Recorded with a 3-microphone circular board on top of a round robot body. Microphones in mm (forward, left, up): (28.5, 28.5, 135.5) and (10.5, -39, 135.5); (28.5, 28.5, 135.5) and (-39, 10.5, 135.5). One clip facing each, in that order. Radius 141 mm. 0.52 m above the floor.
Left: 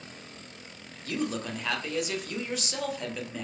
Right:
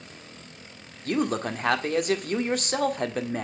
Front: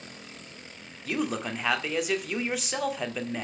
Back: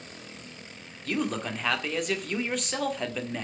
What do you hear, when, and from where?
1.1 s a man speaking: 70° right, 1.9 m